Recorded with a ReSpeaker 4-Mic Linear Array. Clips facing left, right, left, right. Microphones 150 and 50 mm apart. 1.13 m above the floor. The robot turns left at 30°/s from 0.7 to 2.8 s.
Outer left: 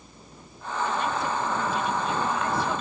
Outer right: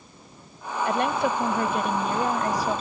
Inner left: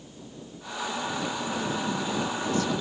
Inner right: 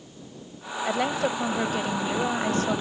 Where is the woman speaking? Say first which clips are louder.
Outer right 5 dB, inner right 6 dB; 85° right; by 2.8 s 145° right.